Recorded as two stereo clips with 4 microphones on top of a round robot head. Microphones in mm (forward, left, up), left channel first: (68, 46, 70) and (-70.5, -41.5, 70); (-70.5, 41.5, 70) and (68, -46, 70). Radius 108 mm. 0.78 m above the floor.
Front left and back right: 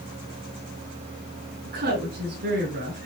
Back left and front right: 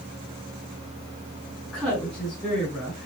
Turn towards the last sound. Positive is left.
turn(degrees=-125)